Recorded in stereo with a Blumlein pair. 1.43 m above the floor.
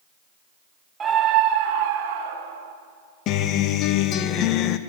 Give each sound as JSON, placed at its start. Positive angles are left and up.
{"t": 1.0, "sound": "a scream", "azimuth_deg": -20, "distance_m": 0.9}
{"t": 3.3, "sound": "a guitar", "azimuth_deg": 35, "distance_m": 1.0}